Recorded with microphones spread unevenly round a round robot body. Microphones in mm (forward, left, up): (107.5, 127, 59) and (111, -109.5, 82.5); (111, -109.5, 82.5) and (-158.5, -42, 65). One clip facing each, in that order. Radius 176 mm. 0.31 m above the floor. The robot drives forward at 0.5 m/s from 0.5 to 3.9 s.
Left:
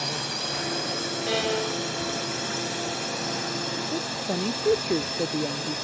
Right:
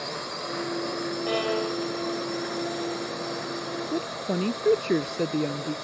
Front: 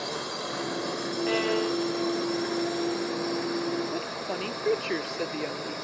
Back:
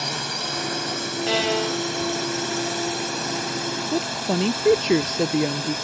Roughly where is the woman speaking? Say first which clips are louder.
Right 3 dB, back 9 dB; behind.